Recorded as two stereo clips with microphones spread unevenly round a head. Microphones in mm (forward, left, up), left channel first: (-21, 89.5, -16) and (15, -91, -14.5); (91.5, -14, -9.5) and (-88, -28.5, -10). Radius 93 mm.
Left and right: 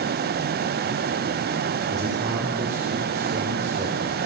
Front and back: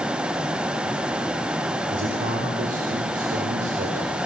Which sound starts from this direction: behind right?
A man speaking, at 1.9 s.